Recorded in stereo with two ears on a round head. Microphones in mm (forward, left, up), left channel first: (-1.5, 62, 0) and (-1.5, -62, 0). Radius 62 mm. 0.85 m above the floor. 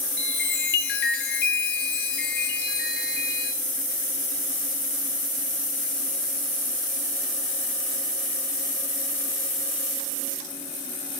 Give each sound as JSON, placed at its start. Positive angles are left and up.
{"t": 0.2, "sound": "a chime", "side_deg": 85, "distance_m": 1.3}